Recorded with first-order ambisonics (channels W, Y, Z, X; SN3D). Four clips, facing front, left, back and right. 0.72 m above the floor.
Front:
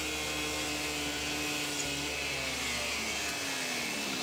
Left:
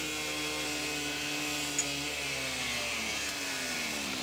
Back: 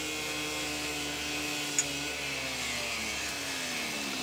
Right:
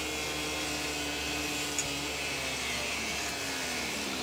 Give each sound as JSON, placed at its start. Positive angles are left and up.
{"t": 1.8, "sound": "a clink", "azimuth_deg": -170, "distance_m": 1.0}